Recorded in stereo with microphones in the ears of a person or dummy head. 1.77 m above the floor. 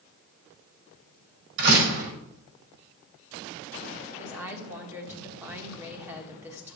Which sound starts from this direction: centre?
A woman speaking, at 4.2 s.